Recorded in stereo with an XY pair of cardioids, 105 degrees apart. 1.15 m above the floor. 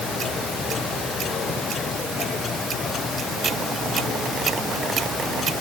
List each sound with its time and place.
Only background noise.